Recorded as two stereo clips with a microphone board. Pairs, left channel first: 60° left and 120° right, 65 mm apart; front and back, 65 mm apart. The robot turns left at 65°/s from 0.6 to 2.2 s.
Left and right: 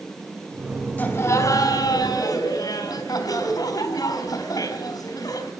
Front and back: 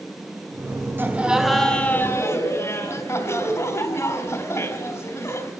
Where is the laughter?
120° left, 4 m; by 5.5 s 40° left, 4 m.